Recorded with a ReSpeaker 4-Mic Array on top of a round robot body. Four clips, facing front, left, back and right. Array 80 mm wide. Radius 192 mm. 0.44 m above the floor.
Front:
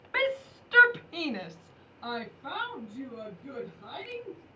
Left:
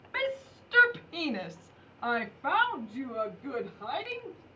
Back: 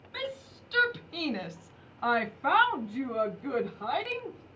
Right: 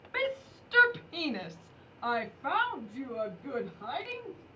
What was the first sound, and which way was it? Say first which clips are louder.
A shout: even, front 8 dB; straight ahead.